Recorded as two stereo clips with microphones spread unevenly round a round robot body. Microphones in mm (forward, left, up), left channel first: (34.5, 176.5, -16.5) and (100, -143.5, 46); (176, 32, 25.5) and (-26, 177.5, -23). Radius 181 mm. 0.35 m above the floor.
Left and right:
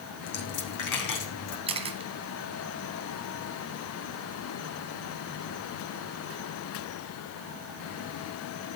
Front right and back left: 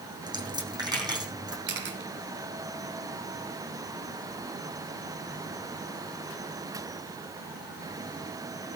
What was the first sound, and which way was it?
A dropped coin, 70° left.